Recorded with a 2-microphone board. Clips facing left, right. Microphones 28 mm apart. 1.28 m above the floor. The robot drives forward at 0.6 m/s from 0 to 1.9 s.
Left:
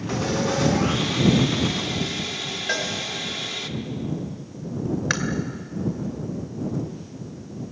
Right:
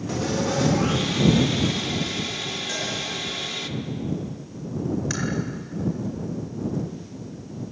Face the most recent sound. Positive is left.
turn(degrees=45)  # may be behind; listen again after turning